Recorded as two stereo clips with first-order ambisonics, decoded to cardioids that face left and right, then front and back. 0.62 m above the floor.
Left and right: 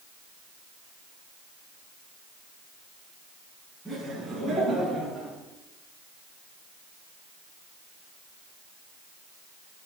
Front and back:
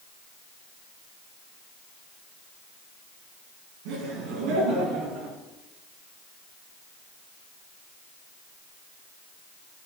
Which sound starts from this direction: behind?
Laughter, at 3.9 s.